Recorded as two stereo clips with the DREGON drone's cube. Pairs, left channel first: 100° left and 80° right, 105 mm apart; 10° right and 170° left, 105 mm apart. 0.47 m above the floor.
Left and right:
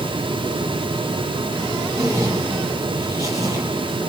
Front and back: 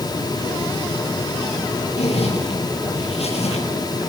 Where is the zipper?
20° right, 7 m.